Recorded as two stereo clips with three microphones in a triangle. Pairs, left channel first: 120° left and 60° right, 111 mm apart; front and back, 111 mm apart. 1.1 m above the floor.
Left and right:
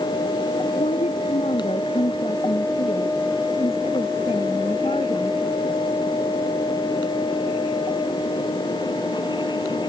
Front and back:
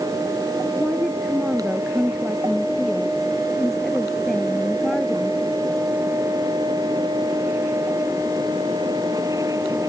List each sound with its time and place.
0.8 s a woman speaking: 95° left; by 5.4 s 85° left